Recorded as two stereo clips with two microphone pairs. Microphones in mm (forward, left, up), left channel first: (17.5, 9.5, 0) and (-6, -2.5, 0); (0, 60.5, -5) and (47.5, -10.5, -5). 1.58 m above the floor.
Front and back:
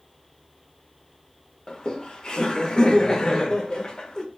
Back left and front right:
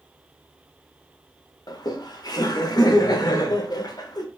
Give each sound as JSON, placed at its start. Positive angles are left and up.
{"t": 1.7, "sound": "laughter", "azimuth_deg": 85, "distance_m": 0.6}